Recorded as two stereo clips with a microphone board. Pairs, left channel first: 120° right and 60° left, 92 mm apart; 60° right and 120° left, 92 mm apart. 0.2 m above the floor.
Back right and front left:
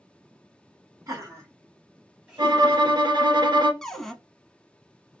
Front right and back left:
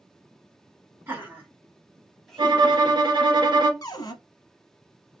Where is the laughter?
75° left, 2.0 m; by 3.0 s 60° right, 1.7 m.